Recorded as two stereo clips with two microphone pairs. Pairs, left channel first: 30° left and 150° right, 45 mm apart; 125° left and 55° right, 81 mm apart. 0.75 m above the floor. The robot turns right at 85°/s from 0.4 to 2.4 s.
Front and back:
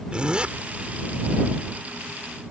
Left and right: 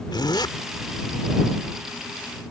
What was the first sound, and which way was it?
A zipper, 140° left.